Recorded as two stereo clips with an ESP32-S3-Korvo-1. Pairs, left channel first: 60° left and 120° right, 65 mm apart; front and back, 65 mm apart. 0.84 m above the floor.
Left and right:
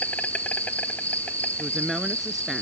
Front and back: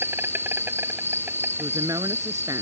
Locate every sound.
0.0 s an insect: 130° left
1.6 s a woman speaking: 150° left